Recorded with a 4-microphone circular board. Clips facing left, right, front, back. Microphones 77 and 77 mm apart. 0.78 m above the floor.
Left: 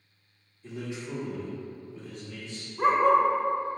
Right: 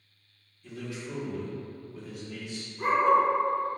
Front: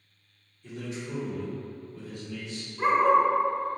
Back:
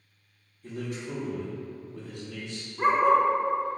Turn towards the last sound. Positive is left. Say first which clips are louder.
# left 1 dB, even
turn(degrees=110)